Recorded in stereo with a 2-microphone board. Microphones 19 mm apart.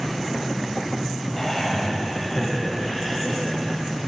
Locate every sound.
1.4 s laughter: 15° left (ahead or behind), 1.9 m; by 3.8 s 5° left (ahead or behind), 3.5 m